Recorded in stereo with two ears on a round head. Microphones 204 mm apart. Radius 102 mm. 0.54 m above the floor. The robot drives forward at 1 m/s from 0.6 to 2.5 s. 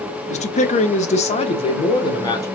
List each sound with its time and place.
0.3 s a man speaking: 30° left (ahead or behind), 1.1 m; by 2.5 s 15° left (ahead or behind), 2.0 m